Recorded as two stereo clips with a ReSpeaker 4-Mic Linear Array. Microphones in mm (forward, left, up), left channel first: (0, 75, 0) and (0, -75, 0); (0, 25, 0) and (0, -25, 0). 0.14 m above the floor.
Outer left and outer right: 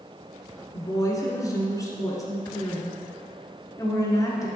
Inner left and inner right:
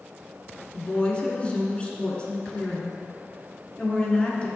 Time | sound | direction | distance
0.7 | a woman speaking | 25° left (ahead or behind) | 1.4 m